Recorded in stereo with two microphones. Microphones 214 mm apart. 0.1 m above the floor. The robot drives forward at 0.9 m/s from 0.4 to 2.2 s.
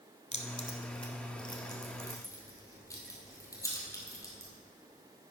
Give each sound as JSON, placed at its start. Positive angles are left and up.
{"t": 0.3, "sound": "keys jangling", "side_deg": 30, "distance_m": 1.0}